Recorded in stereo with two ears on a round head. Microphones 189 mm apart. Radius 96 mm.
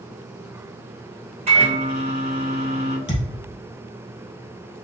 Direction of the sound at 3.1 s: 20° left (ahead or behind).